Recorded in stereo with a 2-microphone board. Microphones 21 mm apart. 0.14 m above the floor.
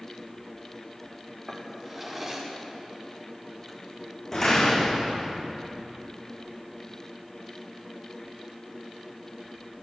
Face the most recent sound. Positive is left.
turn(degrees=15)  # may be behind; listen again after turning